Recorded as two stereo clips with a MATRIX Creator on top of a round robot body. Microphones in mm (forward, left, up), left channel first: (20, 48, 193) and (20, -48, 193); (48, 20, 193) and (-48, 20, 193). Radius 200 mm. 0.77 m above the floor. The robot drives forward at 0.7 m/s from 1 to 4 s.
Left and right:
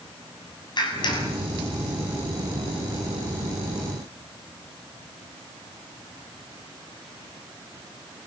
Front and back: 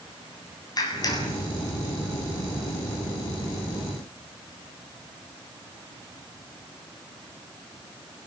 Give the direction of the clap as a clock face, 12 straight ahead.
10 o'clock.